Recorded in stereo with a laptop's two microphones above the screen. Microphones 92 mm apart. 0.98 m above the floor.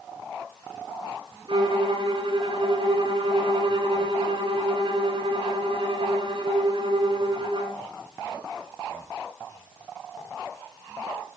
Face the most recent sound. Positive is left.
turn(degrees=-55)  # may be behind; listen again after turning